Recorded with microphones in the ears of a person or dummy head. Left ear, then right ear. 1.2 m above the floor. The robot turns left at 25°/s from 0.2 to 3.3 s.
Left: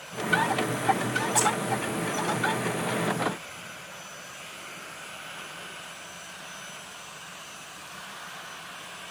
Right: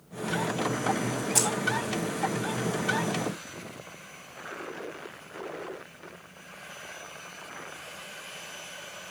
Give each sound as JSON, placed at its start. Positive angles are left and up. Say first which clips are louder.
{"t": 1.4, "sound": "keys jangling", "louder": "left 2 dB", "side_deg": -30, "distance_m": 1.0}